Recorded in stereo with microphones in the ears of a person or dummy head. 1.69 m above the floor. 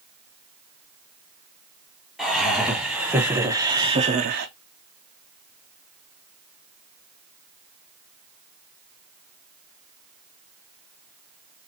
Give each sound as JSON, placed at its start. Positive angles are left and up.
{"t": 2.2, "sound": "laughter", "side_deg": 0, "distance_m": 2.5}